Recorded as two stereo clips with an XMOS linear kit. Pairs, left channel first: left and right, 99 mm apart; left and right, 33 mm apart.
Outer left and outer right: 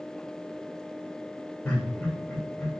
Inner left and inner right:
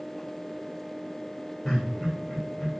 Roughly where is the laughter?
Left.